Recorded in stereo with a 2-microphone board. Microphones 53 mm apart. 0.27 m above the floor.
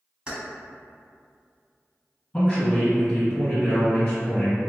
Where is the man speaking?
20° left (ahead or behind), 1.6 m.